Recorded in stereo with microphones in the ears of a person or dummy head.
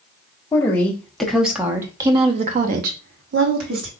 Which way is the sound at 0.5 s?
10° left (ahead or behind).